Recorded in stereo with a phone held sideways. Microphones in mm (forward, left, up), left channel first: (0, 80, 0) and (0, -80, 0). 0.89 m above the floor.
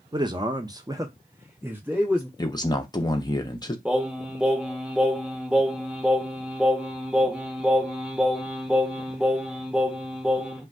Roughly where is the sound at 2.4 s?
Left.